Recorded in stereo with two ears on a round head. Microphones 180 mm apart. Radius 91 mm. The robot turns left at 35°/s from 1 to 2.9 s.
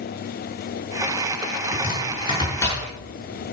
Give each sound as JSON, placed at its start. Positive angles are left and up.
{"t": 1.7, "sound": "chopping", "side_deg": 45, "distance_m": 6.5}